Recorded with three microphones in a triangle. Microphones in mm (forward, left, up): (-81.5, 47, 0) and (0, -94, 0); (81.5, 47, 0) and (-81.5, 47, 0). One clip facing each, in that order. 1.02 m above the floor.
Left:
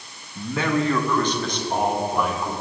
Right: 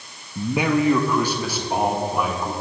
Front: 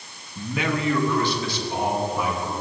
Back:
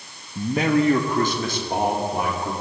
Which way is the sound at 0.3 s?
130° right.